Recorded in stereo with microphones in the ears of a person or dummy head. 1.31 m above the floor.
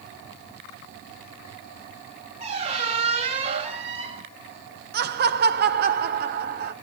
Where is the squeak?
40° right (ahead or behind), 2.5 m.